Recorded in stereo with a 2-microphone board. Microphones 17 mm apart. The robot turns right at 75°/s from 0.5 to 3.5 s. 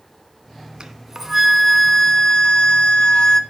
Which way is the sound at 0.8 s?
55° right.